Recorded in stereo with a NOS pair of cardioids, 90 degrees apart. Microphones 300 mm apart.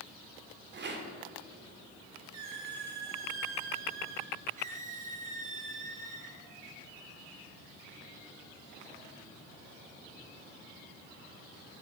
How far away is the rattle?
About 2.5 m.